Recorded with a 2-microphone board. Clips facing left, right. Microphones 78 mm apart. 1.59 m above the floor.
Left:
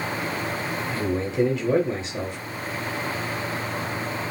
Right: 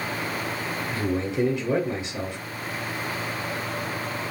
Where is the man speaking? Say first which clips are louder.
Left 1 dB; 5° right (ahead or behind), 0.7 m.